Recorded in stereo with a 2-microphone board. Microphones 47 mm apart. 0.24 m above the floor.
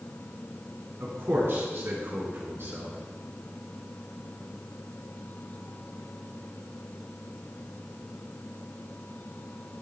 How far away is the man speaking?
About 2.5 m.